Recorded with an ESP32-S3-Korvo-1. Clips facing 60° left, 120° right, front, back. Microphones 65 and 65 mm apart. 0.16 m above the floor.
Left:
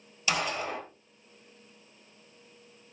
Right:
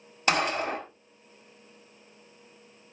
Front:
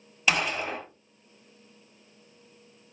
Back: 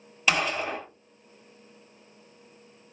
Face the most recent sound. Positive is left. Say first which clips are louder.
# right 5 dB, back 1 dB
turn(degrees=-90)